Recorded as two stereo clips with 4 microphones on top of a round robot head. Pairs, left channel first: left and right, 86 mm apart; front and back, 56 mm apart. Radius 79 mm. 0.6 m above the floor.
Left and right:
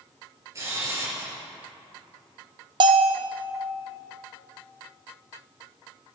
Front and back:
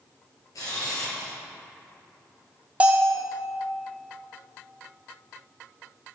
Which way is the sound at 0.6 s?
35° right.